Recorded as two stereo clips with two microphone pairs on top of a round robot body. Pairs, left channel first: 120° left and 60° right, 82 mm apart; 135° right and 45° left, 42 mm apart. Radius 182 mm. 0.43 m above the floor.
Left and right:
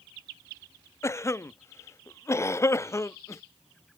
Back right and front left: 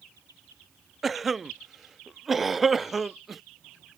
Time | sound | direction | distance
1.0 | a cough | 120° left | ?